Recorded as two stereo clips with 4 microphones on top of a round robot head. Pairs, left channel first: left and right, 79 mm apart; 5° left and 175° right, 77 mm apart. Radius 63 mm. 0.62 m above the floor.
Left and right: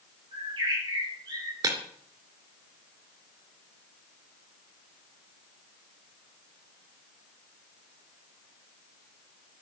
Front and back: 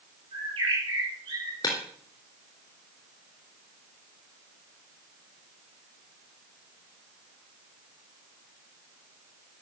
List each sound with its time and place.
0.3 s a bird: 140° right, 7 m
1.6 s breaking glass: 50° right, 3 m